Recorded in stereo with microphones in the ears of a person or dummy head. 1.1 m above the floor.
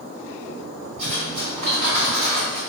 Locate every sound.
1.0 s cutlery clinking: 40° right (ahead or behind), 1.5 m